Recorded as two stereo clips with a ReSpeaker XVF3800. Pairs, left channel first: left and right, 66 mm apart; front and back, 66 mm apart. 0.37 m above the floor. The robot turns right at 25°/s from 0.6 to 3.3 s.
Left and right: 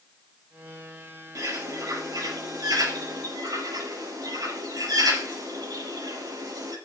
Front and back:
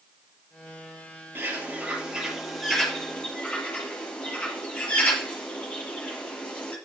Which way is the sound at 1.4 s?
120° right.